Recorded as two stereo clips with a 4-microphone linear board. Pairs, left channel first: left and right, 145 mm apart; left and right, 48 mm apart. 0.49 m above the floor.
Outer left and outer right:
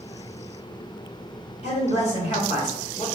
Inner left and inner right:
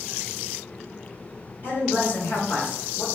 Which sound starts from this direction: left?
A man speaking, at 1.6 s.